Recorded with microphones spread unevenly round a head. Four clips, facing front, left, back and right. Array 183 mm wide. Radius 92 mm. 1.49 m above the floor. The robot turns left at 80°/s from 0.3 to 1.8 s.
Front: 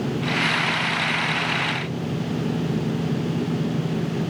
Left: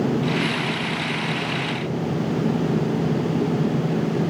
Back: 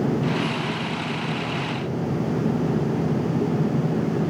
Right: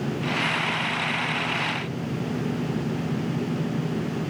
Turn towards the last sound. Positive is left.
No sound to turn to.